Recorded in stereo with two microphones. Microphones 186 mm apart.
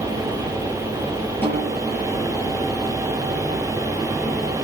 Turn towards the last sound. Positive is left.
turn(degrees=10)  # may be behind; listen again after turning